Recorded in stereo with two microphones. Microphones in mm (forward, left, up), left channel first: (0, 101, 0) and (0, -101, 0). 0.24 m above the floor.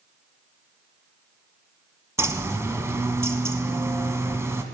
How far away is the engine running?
No engine running in this recording.